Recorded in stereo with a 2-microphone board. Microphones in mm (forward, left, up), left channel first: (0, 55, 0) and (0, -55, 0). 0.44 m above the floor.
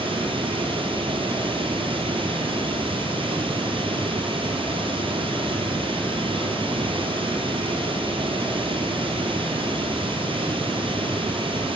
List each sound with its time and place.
0.0 s running water: 50° right (ahead or behind), 2 m